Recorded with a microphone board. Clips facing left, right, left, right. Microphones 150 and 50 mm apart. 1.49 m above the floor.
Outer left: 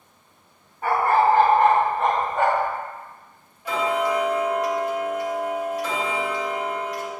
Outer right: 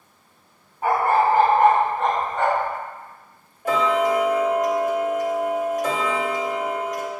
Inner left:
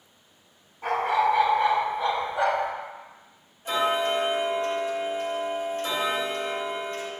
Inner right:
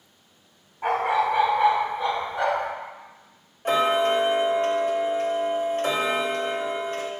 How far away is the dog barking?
About 1.2 m.